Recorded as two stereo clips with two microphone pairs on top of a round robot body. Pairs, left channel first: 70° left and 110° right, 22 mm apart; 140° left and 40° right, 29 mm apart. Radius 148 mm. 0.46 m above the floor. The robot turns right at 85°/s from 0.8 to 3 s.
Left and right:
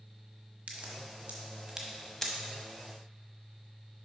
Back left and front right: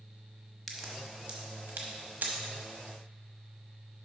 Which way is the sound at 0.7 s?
125° right.